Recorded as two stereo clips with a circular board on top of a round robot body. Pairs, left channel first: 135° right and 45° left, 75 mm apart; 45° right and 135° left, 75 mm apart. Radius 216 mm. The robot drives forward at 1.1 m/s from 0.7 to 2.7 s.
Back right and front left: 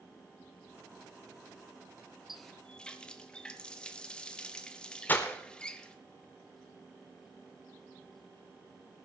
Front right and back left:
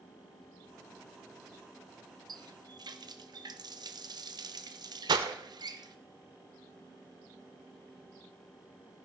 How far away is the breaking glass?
About 0.6 m.